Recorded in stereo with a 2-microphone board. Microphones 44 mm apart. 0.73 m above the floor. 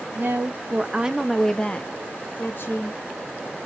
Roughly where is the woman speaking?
Right.